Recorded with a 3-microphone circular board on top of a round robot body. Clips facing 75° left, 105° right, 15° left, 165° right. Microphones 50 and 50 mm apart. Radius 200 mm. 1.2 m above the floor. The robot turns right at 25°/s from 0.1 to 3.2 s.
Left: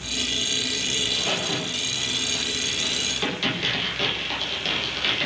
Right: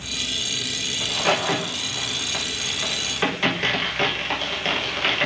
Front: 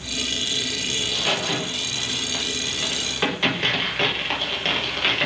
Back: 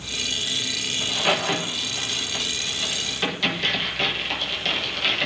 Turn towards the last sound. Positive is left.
turn(degrees=-45)